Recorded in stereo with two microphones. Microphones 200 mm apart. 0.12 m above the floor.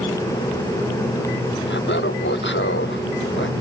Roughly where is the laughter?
Left.